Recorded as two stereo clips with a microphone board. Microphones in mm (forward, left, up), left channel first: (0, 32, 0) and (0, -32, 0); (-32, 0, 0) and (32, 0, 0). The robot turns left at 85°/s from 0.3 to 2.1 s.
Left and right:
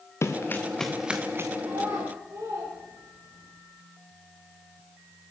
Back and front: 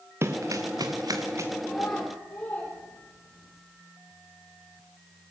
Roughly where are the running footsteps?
Ahead left.